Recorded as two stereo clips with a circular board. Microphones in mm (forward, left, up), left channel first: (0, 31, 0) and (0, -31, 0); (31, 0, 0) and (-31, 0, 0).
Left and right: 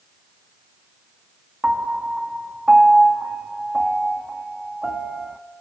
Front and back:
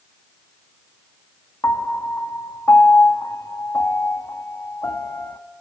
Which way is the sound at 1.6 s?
15° right.